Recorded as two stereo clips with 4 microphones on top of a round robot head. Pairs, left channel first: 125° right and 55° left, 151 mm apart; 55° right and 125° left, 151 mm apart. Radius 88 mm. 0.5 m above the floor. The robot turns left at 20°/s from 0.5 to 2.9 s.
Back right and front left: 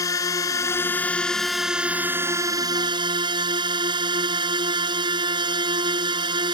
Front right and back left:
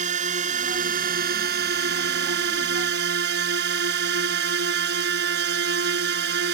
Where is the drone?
165° left; by 6.5 s 120° left.